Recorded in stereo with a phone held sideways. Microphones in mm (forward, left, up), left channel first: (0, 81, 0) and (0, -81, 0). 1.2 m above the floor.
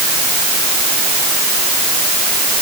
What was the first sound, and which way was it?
Only background noise.